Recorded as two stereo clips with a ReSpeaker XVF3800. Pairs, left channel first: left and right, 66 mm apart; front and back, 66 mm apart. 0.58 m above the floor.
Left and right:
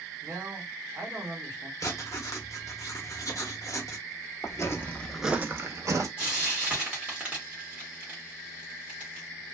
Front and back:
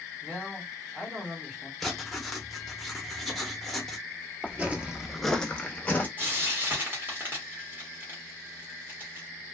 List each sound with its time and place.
0.2 s a man speaking: 115° right, 1.3 m
1.8 s writing: 90° left, 0.7 m
4.4 s footsteps: 115° left, 0.9 m; by 6.1 s 65° right, 1.1 m
6.2 s frying: 150° right, 1.4 m